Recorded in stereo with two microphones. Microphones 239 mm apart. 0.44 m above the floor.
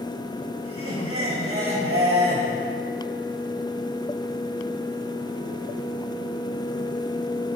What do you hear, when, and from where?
0.6 s laughter: 70° right (ahead or behind), 4.5 m